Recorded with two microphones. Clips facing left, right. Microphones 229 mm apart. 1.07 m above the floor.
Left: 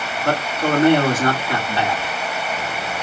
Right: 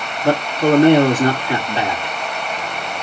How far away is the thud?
No thud in this recording.